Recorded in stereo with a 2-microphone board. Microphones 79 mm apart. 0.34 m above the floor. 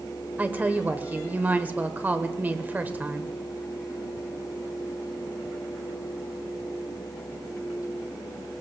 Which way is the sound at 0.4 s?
20° right (ahead or behind).